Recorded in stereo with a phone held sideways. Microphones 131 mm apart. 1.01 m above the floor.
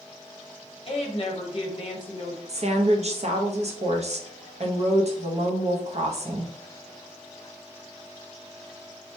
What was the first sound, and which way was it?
A woman speaking, 45° left (ahead or behind).